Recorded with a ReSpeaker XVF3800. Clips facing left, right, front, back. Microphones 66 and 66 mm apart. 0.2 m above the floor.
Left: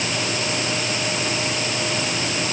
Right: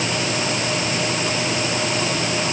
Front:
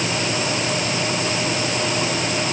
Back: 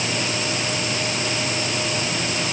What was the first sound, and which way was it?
Only background noise.